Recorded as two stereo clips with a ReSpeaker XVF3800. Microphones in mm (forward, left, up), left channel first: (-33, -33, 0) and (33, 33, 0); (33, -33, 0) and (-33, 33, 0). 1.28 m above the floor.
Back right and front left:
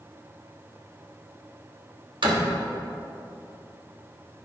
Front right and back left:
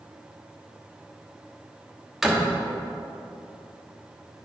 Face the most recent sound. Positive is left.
turn(degrees=50)